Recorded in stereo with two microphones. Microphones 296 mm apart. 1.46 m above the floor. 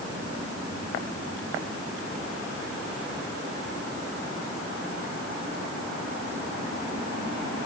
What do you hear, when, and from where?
Only background noise.